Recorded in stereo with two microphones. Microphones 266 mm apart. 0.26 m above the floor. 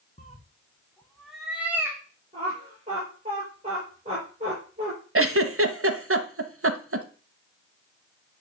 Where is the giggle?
55° right (ahead or behind), 0.9 m.